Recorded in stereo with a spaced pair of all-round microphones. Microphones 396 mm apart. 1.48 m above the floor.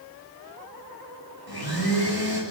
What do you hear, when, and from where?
1.5 s a blender: 60° left (ahead or behind), 7.5 m